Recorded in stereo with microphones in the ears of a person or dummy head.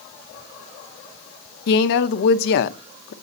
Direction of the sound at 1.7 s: 55° left (ahead or behind).